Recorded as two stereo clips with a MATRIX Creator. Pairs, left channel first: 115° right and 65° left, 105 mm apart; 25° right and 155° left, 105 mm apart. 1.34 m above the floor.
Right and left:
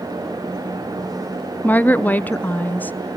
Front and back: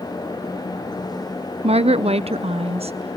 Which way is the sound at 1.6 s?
175° left.